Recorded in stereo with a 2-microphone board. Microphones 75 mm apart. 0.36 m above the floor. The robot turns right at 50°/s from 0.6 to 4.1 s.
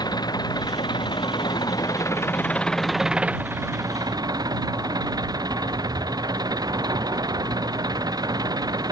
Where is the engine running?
65° left; by 8.9 s 120° right.